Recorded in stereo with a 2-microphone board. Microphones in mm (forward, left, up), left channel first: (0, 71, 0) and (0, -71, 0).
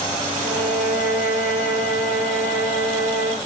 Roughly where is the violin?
Centre.